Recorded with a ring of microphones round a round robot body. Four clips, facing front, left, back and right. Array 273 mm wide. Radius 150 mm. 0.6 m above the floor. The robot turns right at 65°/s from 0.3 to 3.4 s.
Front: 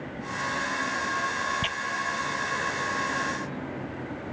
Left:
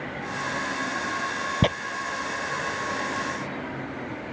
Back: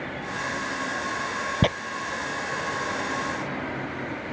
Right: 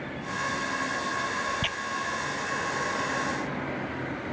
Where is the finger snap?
I don't hear a finger snap.